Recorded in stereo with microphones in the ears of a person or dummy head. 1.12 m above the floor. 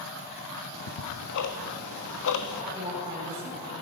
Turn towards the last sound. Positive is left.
turn(degrees=-25)  # may be behind; listen again after turning